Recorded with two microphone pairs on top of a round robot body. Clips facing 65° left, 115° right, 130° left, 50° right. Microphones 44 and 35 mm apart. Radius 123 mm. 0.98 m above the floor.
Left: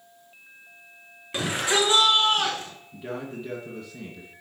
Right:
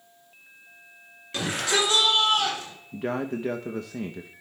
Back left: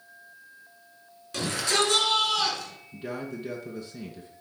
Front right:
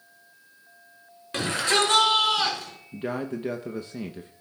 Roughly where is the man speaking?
Right.